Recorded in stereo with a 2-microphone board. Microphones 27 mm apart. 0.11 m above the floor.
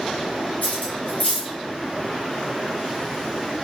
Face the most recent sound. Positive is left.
turn(degrees=70)  # may be behind; listen again after turning